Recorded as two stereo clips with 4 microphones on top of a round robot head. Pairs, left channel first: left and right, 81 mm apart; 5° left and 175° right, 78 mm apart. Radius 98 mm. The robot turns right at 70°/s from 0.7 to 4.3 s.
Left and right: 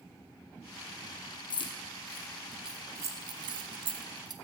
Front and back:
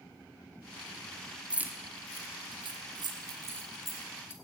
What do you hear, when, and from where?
1.5 s keys jangling: 105° left, 1.1 m; by 4.3 s 55° right, 1.1 m